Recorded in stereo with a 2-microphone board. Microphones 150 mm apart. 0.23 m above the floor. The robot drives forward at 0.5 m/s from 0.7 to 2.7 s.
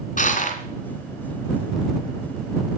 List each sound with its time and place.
0.2 s crushing: 60° left (ahead or behind), 2.5 m